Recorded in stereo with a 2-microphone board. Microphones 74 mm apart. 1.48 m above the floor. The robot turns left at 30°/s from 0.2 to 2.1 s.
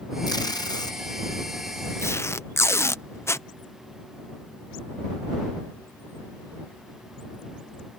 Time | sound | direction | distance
0.3 | tape being pulled | 65° left (ahead or behind) | ?